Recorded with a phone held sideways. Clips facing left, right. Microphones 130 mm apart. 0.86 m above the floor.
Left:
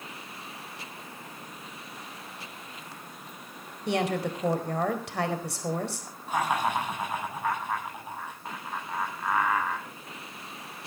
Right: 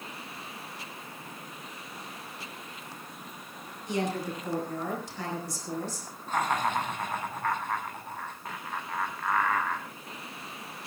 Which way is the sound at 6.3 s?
10° left (ahead or behind).